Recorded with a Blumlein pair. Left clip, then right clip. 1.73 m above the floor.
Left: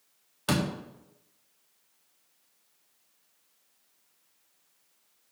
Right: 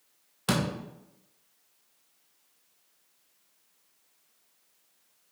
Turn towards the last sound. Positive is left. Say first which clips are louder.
# even
turn(degrees=0)